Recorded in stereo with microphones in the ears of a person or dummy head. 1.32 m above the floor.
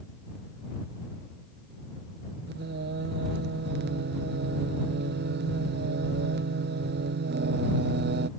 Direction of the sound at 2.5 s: 55° right (ahead or behind).